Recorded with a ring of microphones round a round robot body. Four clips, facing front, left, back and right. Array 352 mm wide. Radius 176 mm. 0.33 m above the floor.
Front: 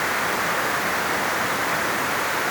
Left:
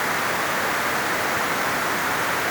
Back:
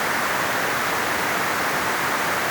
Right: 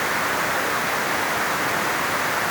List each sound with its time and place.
Only background noise.